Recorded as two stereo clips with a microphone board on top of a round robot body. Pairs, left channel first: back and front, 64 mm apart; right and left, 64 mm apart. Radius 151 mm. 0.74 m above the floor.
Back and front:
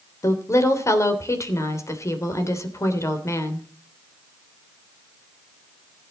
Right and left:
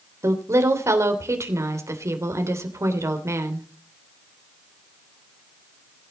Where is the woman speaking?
135° left, 3 m.